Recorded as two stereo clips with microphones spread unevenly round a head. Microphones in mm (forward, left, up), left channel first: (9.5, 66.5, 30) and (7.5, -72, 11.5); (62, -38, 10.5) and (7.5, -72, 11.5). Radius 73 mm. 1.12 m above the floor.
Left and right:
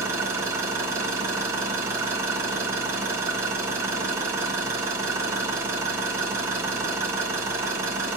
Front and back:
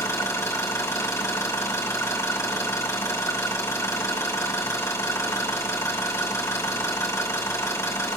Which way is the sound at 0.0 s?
20° right.